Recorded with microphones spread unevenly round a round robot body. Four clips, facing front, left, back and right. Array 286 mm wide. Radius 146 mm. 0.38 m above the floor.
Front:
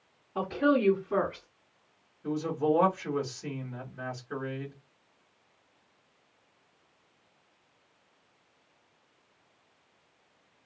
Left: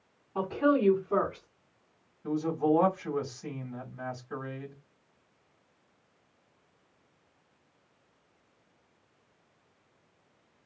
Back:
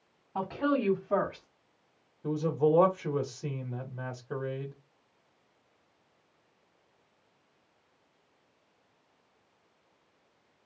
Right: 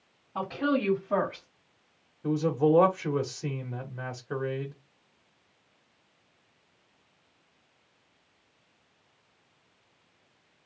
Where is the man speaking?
120° right, 1.4 m.